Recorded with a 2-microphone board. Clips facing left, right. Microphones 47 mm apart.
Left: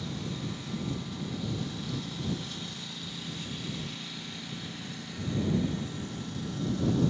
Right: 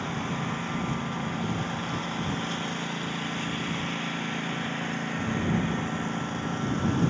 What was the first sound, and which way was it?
A lawn mower, 45° right (ahead or behind).